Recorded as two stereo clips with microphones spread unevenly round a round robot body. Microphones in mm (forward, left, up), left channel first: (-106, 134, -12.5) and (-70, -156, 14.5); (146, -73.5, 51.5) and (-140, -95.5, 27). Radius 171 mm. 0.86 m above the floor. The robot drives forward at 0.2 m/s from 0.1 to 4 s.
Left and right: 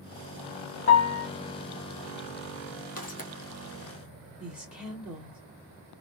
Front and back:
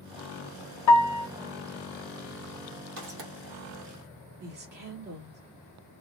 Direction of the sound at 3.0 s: 160° left.